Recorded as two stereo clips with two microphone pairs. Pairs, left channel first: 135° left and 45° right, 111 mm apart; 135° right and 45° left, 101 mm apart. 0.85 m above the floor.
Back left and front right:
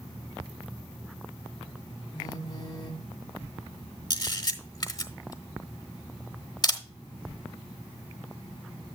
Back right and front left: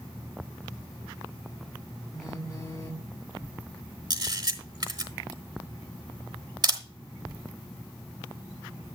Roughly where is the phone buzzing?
Behind.